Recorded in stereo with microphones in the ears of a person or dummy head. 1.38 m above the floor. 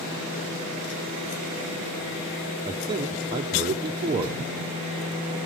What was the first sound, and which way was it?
A man speaking, 25° right (ahead or behind).